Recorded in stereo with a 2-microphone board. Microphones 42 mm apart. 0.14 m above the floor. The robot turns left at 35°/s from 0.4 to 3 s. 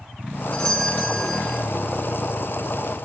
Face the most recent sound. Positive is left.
turn(degrees=0)